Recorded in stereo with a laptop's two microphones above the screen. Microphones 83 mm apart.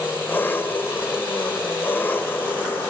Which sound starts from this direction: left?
An engine running, at 0.0 s.